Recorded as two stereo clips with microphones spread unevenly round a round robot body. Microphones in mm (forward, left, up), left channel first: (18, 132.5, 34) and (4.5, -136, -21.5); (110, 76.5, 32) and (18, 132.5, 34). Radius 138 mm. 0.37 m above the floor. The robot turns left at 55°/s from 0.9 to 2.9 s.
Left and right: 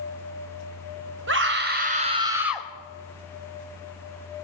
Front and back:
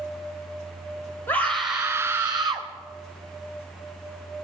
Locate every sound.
1.3 s a scream: 100° right, 1.7 m; by 2.7 s straight behind, 1.7 m